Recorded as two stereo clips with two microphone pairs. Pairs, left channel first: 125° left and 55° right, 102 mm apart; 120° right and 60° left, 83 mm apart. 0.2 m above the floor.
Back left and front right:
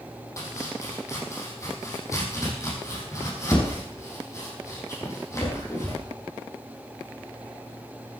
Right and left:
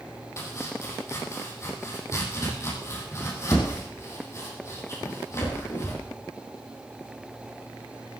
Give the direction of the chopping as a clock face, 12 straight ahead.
6 o'clock.